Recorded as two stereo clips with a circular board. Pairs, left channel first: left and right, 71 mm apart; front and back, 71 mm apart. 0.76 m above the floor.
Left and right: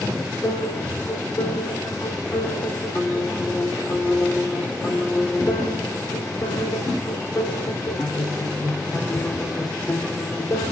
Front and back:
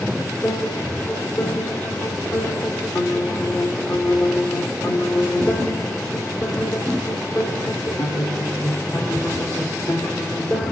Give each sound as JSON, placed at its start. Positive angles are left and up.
{"t": 0.4, "sound": "a piano", "azimuth_deg": 30, "distance_m": 2.0}